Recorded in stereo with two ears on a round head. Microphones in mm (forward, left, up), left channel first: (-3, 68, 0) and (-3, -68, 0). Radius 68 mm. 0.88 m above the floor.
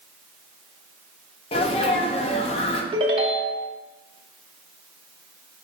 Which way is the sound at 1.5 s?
40° left (ahead or behind).